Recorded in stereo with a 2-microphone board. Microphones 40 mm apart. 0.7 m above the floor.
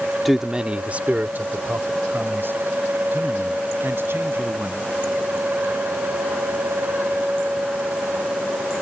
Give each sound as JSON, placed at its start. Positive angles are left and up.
{"t": 0.2, "sound": "a man speaking", "side_deg": 0}